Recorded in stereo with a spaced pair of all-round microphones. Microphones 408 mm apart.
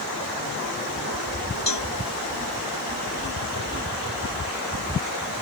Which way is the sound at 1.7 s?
85° left.